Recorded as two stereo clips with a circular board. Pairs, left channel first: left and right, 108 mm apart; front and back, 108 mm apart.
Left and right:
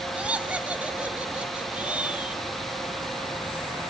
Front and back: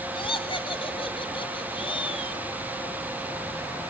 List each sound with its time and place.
0.1 s laughter: 15° right, 1.5 m